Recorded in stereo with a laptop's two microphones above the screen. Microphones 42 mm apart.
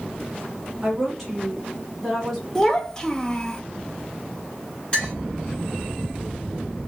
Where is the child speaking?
15° left (ahead or behind), 0.5 m.